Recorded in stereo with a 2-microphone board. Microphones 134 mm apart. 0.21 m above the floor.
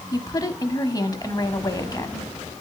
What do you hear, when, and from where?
0.1 s a woman speaking: 25° left (ahead or behind), 1.1 m